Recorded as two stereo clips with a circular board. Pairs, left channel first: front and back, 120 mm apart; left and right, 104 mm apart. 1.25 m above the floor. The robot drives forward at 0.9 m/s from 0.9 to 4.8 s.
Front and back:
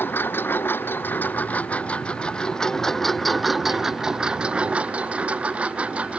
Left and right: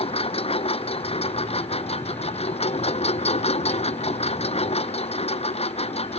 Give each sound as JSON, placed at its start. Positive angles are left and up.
{"t": 0.0, "sound": "a lawn mower", "azimuth_deg": 70}